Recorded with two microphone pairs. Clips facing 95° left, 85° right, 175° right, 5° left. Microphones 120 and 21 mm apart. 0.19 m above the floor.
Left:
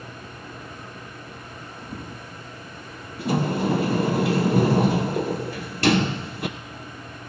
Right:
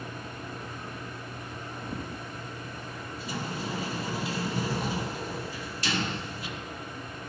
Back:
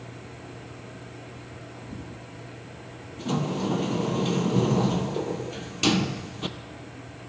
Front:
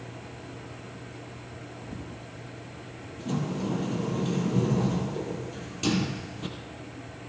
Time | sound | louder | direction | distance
3.2 | a sliding door | left 13 dB, back 3 dB | 125° left | 0.7 m